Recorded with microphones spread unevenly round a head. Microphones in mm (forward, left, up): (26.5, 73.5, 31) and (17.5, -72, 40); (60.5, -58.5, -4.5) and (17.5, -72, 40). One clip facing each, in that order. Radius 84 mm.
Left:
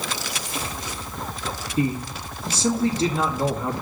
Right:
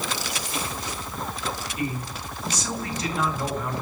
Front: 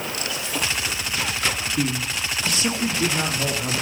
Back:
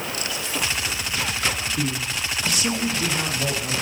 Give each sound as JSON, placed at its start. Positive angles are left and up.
{"t": 1.8, "sound": "a man speaking", "azimuth_deg": 25, "distance_m": 2.5}